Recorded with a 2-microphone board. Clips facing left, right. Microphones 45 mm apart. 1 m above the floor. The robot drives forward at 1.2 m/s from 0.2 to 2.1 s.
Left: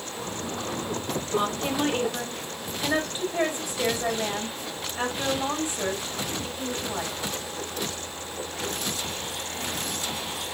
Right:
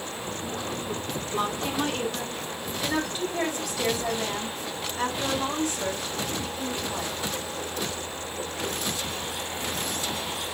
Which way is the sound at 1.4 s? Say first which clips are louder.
Left 1 dB; 25° left (ahead or behind).